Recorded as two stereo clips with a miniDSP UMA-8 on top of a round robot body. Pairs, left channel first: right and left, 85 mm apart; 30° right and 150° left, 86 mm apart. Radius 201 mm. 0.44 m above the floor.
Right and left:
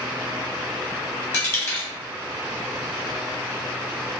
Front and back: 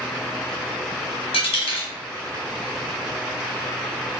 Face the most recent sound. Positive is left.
turn(degrees=-25)